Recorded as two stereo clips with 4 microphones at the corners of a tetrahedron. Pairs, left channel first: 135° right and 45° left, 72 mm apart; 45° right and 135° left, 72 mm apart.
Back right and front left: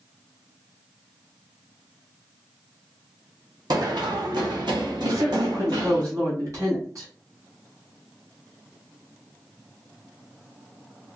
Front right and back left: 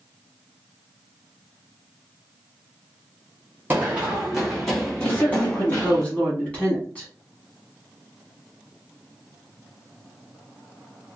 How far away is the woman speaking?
About 1.5 m.